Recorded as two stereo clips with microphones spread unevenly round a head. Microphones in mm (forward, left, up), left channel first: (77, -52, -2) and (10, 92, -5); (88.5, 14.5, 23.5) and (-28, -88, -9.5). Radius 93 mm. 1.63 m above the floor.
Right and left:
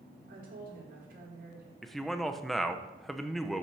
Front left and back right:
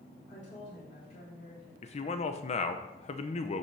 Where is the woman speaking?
95° left, 4.5 m.